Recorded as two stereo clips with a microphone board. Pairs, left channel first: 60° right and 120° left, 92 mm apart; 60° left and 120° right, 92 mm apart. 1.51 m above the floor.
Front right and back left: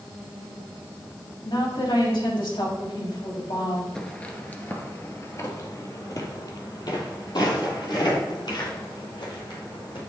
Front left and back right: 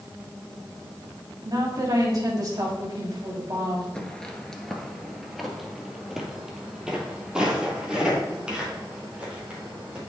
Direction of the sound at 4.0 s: Straight ahead.